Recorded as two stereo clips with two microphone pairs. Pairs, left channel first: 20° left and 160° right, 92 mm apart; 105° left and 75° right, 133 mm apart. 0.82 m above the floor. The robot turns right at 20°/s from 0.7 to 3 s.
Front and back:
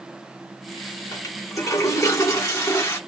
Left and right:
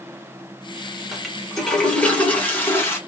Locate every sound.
1.1 s a toilet flushing: 15° left, 1.1 m; by 3.0 s 50° left, 1.1 m